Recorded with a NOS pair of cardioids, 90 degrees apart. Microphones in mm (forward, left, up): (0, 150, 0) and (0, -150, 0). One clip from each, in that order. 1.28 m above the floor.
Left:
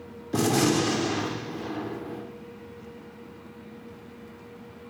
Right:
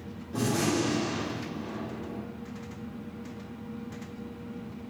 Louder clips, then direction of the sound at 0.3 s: Left 5 dB; 60° left.